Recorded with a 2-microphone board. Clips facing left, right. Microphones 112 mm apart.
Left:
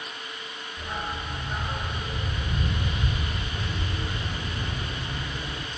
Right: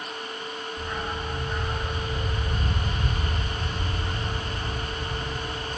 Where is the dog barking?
10° left (ahead or behind), 5 m; by 5.7 s 75° left (ahead or behind), 3.5 m.